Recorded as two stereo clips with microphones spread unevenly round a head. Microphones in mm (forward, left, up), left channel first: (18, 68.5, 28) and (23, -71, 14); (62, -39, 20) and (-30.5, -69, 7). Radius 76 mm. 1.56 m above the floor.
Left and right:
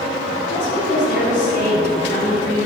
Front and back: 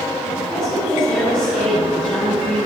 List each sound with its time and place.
0.5 s a woman speaking: 100° left, 5 m